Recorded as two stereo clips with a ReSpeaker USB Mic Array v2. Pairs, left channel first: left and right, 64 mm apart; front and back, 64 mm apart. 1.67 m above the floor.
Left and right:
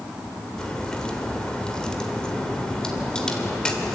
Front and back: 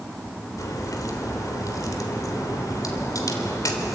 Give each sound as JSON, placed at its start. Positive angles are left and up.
{"t": 0.6, "sound": "a crack", "azimuth_deg": 15, "distance_m": 3.0}